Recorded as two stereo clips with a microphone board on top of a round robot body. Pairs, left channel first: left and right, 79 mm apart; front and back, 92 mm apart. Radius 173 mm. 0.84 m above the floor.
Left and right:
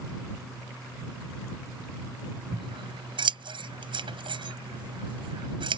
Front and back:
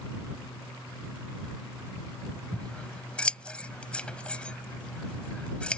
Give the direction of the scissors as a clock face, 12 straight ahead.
3 o'clock.